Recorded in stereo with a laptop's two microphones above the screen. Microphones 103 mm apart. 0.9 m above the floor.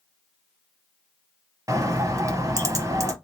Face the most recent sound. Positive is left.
turn(degrees=-35)  # may be behind; listen again after turning